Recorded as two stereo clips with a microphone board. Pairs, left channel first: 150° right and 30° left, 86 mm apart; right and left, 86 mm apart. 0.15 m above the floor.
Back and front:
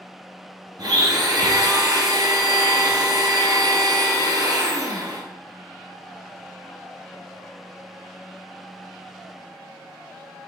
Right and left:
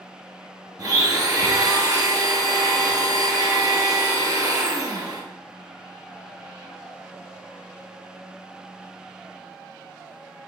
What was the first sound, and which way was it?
A blender, 60° left.